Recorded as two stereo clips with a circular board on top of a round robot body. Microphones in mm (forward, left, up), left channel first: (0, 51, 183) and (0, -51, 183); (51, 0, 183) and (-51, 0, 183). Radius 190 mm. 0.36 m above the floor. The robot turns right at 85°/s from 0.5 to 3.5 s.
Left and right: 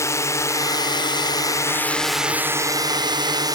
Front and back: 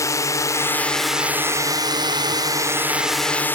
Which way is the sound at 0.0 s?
40° left.